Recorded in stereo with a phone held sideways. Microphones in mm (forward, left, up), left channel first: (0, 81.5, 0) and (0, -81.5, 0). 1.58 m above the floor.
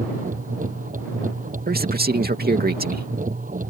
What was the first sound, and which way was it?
A machine running, 55° right (ahead or behind).